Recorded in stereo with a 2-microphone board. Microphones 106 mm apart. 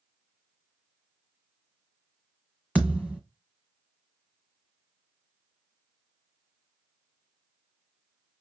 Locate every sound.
2.8 s a thud: 15° left (ahead or behind), 1.3 m